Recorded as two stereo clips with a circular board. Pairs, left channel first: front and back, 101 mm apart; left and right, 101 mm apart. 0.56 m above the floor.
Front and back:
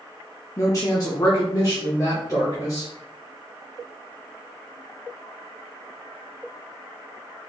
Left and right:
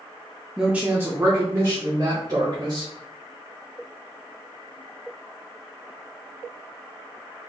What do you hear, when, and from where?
0.6 s a woman speaking: 10° right, 0.7 m; by 2.9 s 50° right, 2.5 m